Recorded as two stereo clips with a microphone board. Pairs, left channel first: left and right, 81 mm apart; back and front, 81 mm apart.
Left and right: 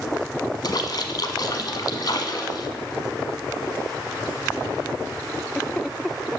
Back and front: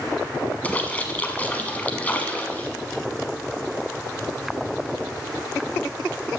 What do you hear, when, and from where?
0.6 s a splash: 110° left, 1.1 m